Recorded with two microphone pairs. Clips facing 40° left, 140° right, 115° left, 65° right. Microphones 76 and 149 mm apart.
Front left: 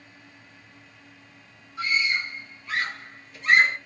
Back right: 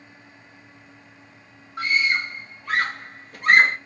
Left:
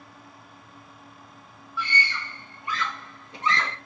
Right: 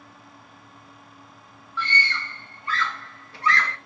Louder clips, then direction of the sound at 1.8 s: Back right 3 dB, right 1 dB; 170° right.